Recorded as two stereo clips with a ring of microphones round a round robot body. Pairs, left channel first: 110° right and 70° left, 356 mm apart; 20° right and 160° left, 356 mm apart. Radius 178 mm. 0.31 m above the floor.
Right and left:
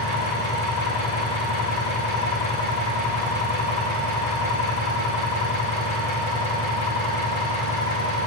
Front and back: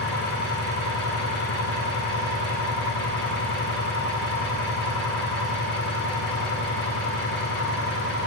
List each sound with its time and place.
0.0 s an engine running: 85° right, 7 m